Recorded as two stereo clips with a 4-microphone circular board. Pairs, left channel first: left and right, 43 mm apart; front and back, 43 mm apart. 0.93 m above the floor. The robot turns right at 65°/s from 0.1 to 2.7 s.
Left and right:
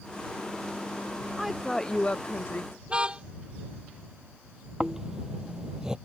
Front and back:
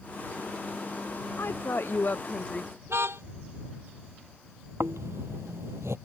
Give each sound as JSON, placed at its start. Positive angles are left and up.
{"t": 1.4, "sound": "a woman speaking", "azimuth_deg": -15}
{"t": 2.9, "sound": "a car horn", "azimuth_deg": -155}
{"t": 4.8, "sound": "snoring", "azimuth_deg": -165}